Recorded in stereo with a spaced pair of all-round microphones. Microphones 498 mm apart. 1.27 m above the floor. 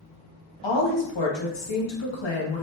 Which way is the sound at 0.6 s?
70° left (ahead or behind).